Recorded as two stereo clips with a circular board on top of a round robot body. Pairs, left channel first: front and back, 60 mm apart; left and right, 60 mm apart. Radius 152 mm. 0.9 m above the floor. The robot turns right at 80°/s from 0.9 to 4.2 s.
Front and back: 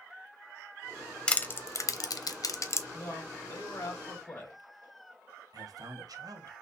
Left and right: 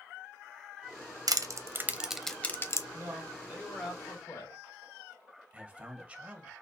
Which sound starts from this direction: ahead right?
A man speaking, at 2.9 s.